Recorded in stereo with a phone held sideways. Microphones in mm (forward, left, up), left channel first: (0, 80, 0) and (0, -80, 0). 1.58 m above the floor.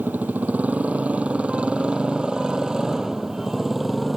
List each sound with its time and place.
0.0 s a motorcycle: 10° right (ahead or behind); by 4.2 s centre (ahead or behind)